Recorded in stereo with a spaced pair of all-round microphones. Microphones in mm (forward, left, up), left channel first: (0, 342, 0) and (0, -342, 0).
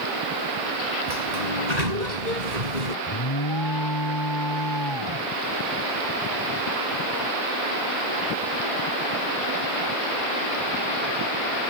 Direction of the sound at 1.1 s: 75° right (ahead or behind).